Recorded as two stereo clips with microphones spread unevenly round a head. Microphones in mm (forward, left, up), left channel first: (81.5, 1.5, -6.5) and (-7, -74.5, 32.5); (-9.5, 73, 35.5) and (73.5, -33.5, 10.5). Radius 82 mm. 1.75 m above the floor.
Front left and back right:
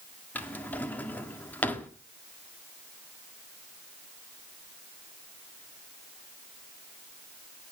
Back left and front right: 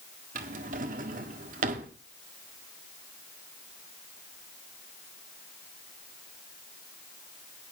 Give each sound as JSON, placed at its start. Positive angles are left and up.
{"t": 0.3, "sound": "a drawer", "azimuth_deg": -50, "distance_m": 1.6}